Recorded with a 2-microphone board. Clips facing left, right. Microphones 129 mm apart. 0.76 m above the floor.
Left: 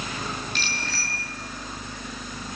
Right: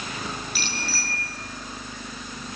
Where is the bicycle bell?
5° right (ahead or behind), 9 m.